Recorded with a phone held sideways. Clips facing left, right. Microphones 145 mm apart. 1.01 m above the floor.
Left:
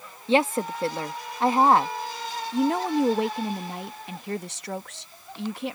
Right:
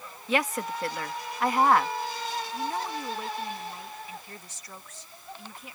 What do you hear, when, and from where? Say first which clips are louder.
0.3 s a woman speaking: left 6 dB; 30° left (ahead or behind)
2.5 s a woman speaking: left 13 dB; 75° left (ahead or behind)